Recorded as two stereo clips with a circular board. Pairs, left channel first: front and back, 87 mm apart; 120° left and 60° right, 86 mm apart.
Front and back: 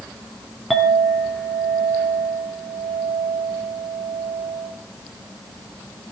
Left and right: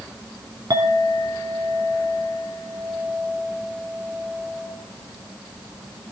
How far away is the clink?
About 2.5 m.